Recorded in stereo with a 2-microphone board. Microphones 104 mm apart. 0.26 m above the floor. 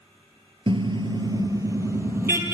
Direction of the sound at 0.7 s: 55° right (ahead or behind).